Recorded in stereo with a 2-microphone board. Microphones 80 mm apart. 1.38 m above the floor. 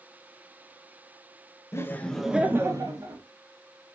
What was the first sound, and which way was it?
Laughter, 35° left (ahead or behind).